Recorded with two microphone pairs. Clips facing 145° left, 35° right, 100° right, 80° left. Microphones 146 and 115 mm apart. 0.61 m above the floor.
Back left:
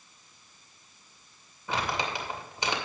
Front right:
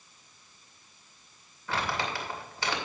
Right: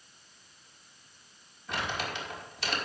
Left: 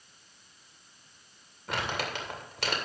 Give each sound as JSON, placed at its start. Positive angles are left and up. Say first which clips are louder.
{"t": 1.7, "sound": "crumpling", "louder": "back left 1 dB, left 1 dB", "azimuth_deg": 70, "distance_m": 2.5}